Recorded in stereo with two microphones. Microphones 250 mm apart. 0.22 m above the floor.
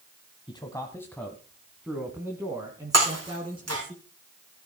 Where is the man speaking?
20° left (ahead or behind), 1.4 m; by 3.9 s 20° right (ahead or behind), 2.5 m.